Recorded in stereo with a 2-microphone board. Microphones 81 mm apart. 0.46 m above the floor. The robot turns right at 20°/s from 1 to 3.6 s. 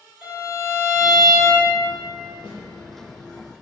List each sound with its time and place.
0.2 s a violin: 30° right (ahead or behind), 2.0 m; by 1.7 s 20° right (ahead or behind), 2.0 m
2.4 s a snare drum: 80° left, 0.8 m